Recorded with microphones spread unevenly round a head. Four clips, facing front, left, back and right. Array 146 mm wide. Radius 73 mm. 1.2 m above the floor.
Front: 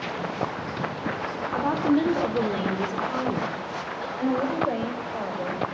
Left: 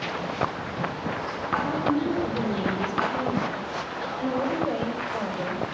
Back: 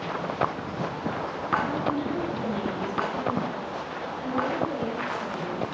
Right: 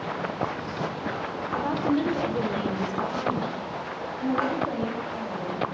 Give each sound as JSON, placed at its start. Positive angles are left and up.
{"t": 1.5, "sound": "a woman speaking", "azimuth_deg": -15, "distance_m": 3.0}